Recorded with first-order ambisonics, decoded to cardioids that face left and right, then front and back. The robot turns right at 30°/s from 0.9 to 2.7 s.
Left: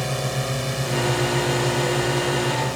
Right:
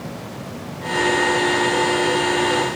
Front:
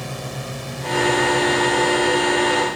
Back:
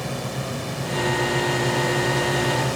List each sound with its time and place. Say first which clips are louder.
0.0 s a drone: left 7 dB, back 1 dB; 90° left; by 2.8 s 150° left